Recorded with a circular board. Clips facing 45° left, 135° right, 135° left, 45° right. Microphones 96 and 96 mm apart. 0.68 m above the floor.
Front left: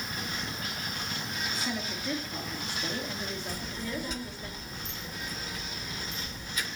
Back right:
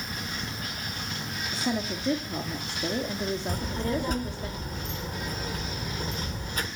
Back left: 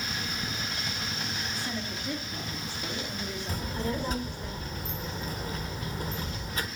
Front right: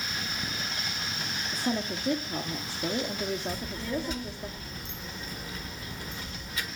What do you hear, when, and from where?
1.5 s a woman speaking: 85° right, 1.3 m
3.5 s a child speaking: 175° right, 1.5 m